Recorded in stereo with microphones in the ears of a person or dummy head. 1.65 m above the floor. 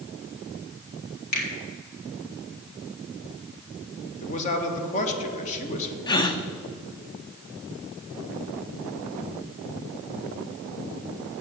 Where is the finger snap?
60° left (ahead or behind), 3 m.